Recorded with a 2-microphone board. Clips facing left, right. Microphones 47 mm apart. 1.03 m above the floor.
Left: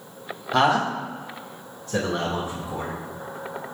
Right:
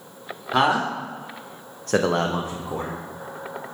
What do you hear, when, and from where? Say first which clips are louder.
0.5 s a man speaking: even; 10° right (ahead or behind), 1.5 m; by 2.9 s 45° right (ahead or behind), 1.2 m